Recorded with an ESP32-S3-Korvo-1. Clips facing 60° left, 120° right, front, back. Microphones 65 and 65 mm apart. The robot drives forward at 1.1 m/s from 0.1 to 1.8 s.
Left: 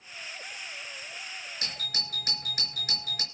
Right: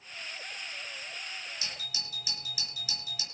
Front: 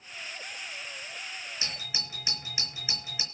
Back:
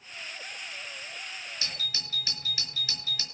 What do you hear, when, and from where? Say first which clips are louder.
1.6 s a doorbell: left 4 dB, back 1 dB; 65° left, 3.5 m